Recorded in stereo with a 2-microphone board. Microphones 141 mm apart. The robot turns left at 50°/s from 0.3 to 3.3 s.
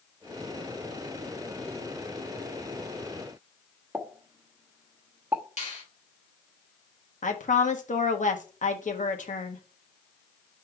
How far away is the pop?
About 1.2 m.